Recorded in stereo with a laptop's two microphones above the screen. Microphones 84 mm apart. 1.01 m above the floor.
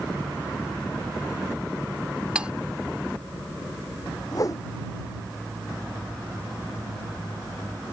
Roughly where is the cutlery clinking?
Centre.